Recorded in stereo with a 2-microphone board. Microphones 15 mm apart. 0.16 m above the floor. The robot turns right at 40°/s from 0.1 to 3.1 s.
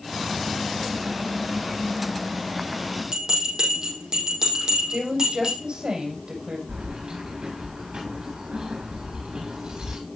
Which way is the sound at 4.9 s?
70° right (ahead or behind).